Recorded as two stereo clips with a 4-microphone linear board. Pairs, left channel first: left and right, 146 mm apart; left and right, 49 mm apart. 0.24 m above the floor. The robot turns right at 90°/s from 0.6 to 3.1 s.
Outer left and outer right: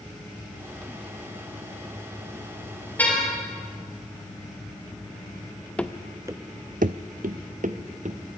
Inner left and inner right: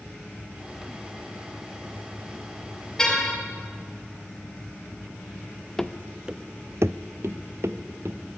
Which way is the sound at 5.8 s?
10° left (ahead or behind).